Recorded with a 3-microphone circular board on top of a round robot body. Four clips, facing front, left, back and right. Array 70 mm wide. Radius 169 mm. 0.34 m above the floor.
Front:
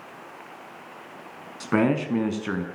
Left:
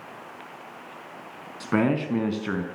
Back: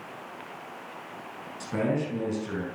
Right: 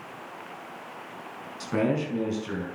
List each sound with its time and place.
1.6 s a man speaking: 35° left, 5 m; by 2.6 s 45° left, 4.5 m